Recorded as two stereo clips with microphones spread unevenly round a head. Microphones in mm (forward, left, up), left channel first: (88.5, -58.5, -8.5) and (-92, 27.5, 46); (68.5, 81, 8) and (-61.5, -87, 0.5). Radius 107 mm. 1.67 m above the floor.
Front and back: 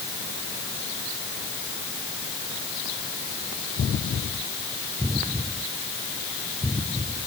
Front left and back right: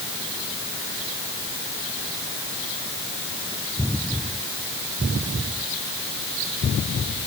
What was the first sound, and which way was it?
Only background noise.